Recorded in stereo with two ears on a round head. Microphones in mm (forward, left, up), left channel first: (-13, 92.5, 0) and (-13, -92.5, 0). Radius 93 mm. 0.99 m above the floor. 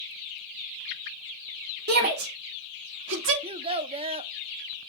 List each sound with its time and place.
1.9 s a shout: 40° right (ahead or behind), 3 m; by 3.3 s 60° right (ahead or behind), 2.5 m
3.4 s a child speaking: 25° right (ahead or behind), 0.5 m